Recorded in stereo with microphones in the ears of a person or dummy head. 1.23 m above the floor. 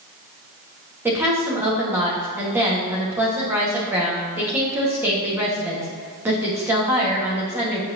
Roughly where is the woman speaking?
Centre.